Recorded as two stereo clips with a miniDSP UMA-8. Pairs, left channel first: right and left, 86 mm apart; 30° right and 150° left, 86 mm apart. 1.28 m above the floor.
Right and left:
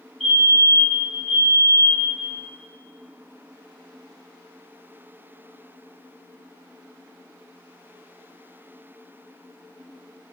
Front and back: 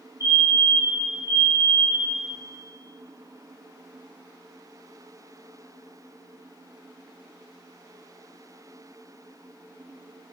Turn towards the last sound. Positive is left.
turn(degrees=-175)